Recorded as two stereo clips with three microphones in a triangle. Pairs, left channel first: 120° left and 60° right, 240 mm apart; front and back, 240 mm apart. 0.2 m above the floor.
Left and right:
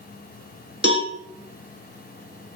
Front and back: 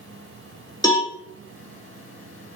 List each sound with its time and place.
0.8 s a cowbell: 70° right, 1.8 m